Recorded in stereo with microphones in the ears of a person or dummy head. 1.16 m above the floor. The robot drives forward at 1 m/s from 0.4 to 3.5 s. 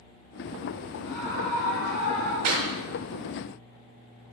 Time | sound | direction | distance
1.0 | a scream | 10° left (ahead or behind) | 5 m
2.4 | a clap | 60° right (ahead or behind) | 3 m